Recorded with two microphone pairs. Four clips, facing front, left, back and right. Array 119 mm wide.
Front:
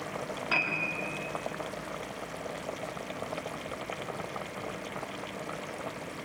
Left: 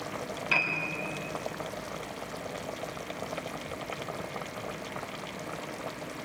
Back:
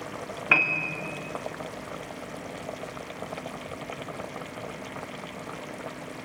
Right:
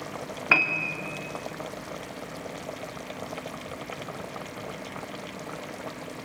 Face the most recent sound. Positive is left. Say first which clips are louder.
# right 7 dB, back 7 dB
turn(degrees=-115)